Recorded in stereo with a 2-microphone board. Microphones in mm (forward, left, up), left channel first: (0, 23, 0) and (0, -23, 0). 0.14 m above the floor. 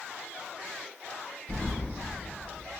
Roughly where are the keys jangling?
Centre.